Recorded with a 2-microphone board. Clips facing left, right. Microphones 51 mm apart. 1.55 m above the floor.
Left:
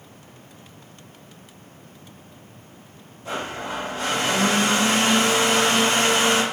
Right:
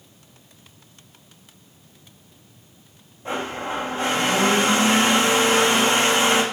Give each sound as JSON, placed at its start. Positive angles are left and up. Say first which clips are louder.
{"t": 3.2, "sound": "a blender", "louder": "right 2 dB", "side_deg": -30, "distance_m": 2.5}